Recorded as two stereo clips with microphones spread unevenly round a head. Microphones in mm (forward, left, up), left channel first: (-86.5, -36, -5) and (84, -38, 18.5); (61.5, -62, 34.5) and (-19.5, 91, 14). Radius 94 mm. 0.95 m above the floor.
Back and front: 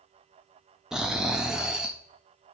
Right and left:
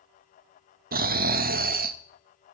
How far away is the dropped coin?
No dropped coin in this recording.